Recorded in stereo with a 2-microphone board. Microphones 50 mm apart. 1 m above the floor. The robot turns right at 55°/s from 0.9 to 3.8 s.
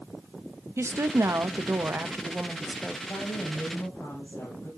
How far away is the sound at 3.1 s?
About 7.5 m.